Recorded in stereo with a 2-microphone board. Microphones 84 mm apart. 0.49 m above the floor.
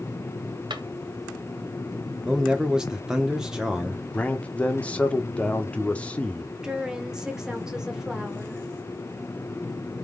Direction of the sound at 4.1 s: 15° left (ahead or behind).